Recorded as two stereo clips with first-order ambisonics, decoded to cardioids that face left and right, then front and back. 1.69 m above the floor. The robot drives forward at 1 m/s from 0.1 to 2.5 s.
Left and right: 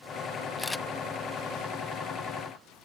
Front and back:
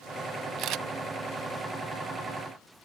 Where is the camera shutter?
165° left; by 0.8 s 170° left.